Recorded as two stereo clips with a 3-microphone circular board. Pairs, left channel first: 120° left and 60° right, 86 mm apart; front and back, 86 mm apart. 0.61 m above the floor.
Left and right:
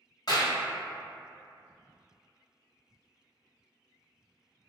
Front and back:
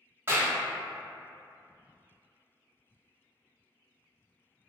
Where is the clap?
125° left, 0.7 m.